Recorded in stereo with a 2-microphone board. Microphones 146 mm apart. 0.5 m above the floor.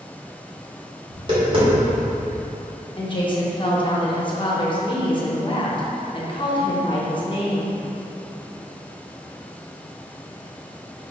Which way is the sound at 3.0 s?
35° left (ahead or behind).